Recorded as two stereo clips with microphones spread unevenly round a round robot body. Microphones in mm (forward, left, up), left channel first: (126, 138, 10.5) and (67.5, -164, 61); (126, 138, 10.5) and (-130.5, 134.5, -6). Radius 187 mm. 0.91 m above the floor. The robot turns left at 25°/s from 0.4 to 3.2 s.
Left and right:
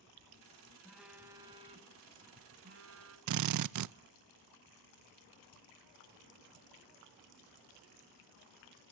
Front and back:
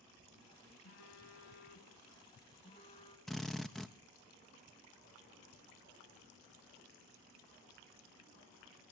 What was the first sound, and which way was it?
A phone buzzing, 15° right.